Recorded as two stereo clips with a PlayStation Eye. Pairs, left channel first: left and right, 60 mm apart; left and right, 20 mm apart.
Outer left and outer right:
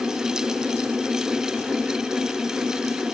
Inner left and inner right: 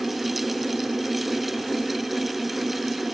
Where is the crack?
No crack in this recording.